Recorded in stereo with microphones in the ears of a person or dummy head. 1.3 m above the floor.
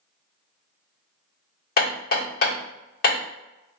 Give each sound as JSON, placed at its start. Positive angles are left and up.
{"t": 1.8, "sound": "hammering", "side_deg": 50, "distance_m": 1.3}